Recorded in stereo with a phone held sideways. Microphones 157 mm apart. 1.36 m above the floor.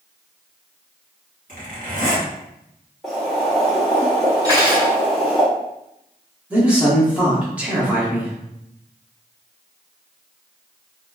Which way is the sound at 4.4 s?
25° right (ahead or behind).